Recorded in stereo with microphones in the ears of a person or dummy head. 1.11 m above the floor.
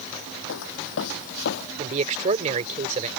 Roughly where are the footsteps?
Left.